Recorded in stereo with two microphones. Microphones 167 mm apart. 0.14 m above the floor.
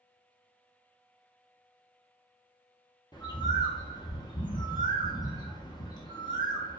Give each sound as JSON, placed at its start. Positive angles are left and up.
{"t": 3.1, "sound": "a bird", "side_deg": 25, "distance_m": 0.6}